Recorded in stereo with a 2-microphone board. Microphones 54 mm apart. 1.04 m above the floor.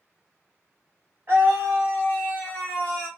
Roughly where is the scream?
Right.